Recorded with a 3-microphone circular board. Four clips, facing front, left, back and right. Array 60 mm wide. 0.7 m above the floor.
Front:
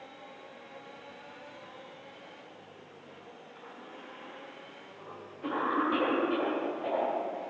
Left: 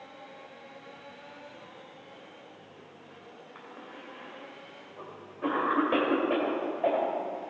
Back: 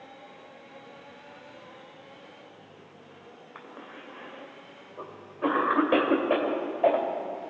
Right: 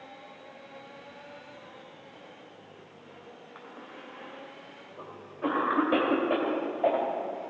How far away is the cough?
About 3 m.